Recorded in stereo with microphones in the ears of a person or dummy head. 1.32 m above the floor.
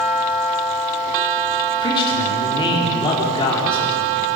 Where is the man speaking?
30° left (ahead or behind), 4 m.